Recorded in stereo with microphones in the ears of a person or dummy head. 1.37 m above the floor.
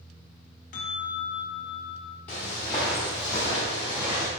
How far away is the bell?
About 0.7 m.